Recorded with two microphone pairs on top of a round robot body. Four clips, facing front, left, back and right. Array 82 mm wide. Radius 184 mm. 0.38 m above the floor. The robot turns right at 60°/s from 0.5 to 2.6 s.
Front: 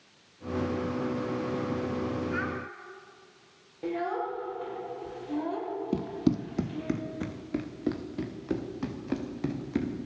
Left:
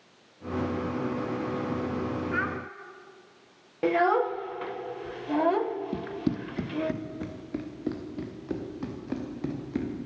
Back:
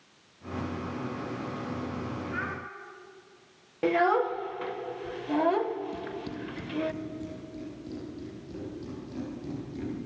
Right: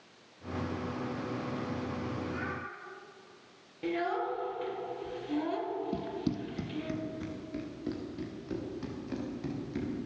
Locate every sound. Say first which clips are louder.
2.3 s a child speaking: left 7 dB, front 2 dB; 80° left, 4 m; by 2.6 s 95° left, 4 m
3.8 s a child speaking: left 9 dB, back 7 dB; 125° left, 1.6 m
5.9 s running footsteps: left 4 dB, front 8 dB; 10° left, 0.7 m; by 9.9 s 40° left, 5 m